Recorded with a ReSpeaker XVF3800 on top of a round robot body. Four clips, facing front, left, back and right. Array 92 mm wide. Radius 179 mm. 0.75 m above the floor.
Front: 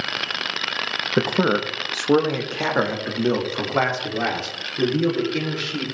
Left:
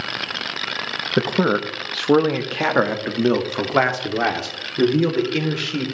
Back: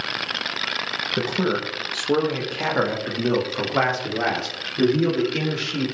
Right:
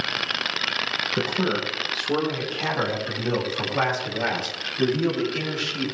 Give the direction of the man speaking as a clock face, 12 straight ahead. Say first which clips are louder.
Left 7 dB, front 4 dB; 11 o'clock.